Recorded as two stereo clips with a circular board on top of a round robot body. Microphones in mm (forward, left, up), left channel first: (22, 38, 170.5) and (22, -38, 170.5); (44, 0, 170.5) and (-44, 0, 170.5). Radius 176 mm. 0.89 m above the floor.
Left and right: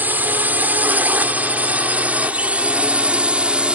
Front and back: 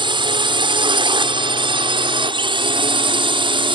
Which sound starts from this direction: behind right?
A drone, at 0.0 s.